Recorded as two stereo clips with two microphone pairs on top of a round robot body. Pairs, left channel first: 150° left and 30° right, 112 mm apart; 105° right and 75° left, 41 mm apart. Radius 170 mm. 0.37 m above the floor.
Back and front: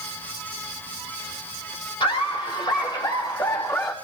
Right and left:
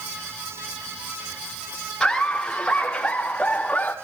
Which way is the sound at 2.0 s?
Straight behind.